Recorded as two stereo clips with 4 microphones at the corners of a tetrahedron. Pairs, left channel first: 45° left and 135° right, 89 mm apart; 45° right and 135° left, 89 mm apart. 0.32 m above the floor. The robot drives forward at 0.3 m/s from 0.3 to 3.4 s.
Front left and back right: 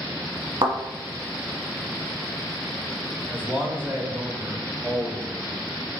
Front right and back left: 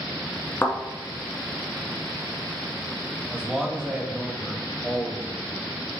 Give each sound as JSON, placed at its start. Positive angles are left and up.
{"t": 0.6, "sound": "a thud", "azimuth_deg": -110, "distance_m": 1.2}
{"t": 3.3, "sound": "a man speaking", "azimuth_deg": -165, "distance_m": 0.9}